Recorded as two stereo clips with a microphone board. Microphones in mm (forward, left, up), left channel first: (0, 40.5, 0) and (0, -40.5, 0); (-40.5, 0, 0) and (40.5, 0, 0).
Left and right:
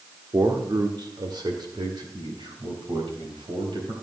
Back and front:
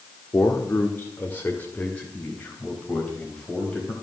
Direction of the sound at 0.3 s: 125° right.